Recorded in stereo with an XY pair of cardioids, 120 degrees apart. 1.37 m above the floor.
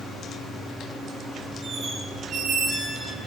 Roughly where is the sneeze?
I don't hear a sneeze.